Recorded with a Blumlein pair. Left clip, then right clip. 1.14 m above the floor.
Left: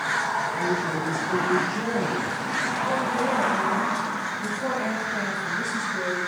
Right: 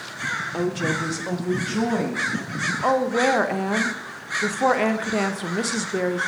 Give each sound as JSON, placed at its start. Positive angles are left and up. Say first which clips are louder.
{"t": 0.5, "sound": "a woman speaking", "louder": "even", "azimuth_deg": -55, "distance_m": 0.7}
{"t": 2.8, "sound": "a woman speaking", "louder": "right 9 dB", "azimuth_deg": -50, "distance_m": 0.6}